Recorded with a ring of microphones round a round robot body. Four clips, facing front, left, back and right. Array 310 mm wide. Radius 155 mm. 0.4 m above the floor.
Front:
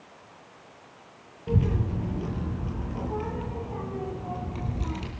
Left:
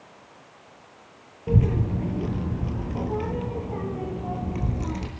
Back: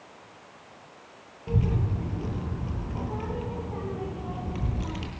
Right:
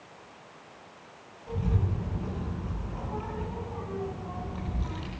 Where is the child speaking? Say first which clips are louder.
Left 8 dB, front 1 dB; 80° left, 4.5 m; by 5.1 s 105° left, 5.5 m.